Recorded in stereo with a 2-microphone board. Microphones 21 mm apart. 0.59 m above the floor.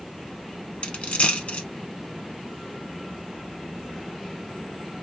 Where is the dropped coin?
70° left (ahead or behind), 1.4 m.